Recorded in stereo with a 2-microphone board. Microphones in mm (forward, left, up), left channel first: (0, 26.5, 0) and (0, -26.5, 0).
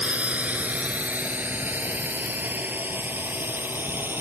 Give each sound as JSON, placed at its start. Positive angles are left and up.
{"t": 0.0, "sound": "a drone", "side_deg": -25}